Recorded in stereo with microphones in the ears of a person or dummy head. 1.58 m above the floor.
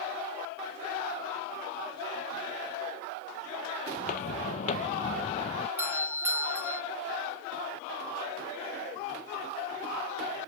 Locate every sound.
4.0 s footsteps: 50° left (ahead or behind); by 5.7 s 40° left (ahead or behind)
5.8 s a doorbell: 15° right (ahead or behind)